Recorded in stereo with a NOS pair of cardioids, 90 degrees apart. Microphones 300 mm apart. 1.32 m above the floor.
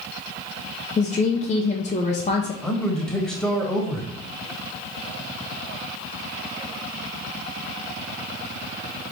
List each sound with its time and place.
1.0 s a woman speaking: 25° left, 0.7 m
2.6 s a man speaking: 5° left, 1.5 m